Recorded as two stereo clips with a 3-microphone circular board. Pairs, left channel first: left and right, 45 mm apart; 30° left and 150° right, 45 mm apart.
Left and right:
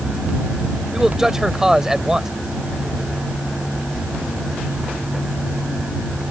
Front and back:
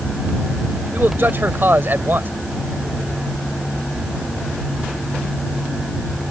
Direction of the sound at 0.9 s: 165° right.